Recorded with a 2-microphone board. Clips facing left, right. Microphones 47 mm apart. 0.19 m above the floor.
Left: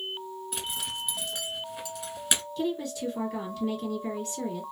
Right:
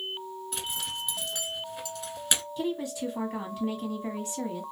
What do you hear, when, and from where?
0.5 s a zipper: 5° left (ahead or behind), 0.9 m
2.6 s a woman speaking: 20° right (ahead or behind), 1.2 m